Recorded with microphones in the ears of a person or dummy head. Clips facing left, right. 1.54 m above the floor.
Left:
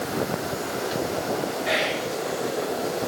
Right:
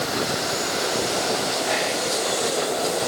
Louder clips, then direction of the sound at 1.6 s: Right 1 dB; 40° left (ahead or behind).